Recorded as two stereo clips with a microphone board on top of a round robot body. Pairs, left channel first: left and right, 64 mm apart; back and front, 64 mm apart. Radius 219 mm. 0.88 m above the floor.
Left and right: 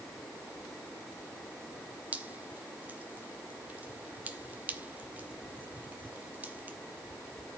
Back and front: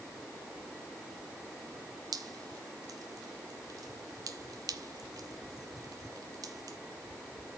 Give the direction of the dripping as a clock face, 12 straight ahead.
1 o'clock.